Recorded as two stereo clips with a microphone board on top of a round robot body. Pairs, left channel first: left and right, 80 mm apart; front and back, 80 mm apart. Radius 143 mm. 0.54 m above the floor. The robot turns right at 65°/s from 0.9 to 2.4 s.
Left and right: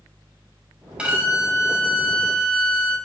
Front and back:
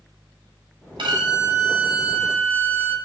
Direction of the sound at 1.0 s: 170° right.